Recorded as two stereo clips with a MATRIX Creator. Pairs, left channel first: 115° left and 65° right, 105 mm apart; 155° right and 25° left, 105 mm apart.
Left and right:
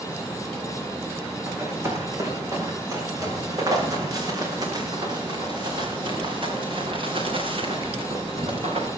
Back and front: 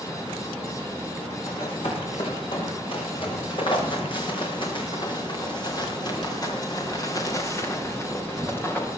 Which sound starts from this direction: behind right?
Running footsteps, at 1.5 s.